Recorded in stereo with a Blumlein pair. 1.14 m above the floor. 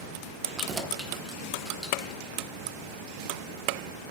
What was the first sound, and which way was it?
Keys jangling, 20° right.